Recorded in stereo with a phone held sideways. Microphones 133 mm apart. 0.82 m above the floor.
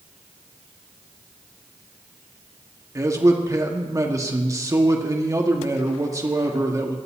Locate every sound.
3.0 s a man speaking: 25° right (ahead or behind), 1.7 m